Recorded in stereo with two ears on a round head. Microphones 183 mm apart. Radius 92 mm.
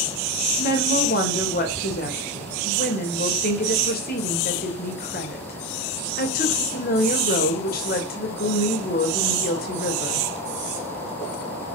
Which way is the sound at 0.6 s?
45° left (ahead or behind).